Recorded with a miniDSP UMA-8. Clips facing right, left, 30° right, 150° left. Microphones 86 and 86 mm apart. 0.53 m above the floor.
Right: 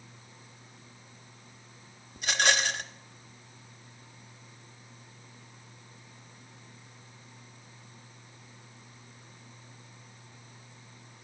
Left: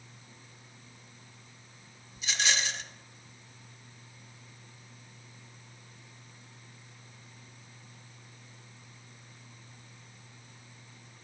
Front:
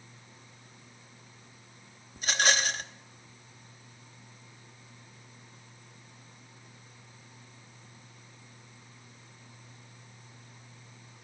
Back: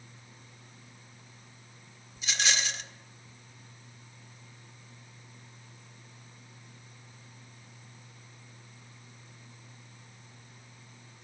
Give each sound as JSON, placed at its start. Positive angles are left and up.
{"t": 2.2, "sound": "a rattle", "azimuth_deg": -65, "distance_m": 0.6}